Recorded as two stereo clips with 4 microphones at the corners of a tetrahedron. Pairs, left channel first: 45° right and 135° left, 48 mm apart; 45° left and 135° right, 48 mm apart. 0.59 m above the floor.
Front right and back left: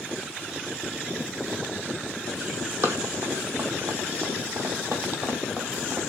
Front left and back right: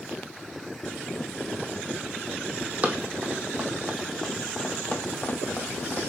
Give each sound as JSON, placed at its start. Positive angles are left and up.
{"t": 2.8, "sound": "running footsteps", "azimuth_deg": 170, "distance_m": 1.2}